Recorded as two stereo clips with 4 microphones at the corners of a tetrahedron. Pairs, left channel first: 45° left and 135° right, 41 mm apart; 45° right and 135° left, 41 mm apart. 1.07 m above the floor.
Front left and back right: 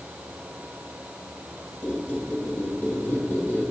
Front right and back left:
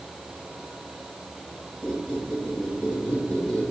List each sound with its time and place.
1.8 s a squeak: 15° left, 1.7 m